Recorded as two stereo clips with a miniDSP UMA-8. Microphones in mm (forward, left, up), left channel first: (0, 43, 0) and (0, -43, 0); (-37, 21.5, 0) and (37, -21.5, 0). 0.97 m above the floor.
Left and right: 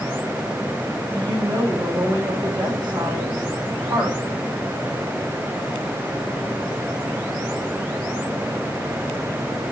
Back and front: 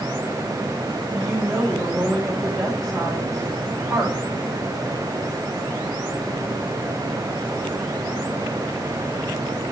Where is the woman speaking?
120° right, 5 m.